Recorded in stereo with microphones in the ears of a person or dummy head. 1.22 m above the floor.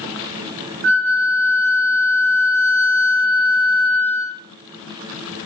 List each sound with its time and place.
0.8 s a flute: 50° right (ahead or behind), 0.5 m